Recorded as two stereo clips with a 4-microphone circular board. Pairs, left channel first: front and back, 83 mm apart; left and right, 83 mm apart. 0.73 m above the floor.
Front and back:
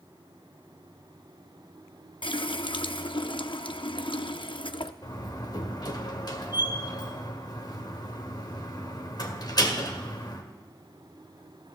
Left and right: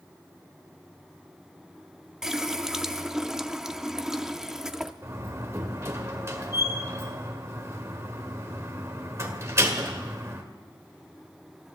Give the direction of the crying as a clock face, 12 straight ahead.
I don't hear crying.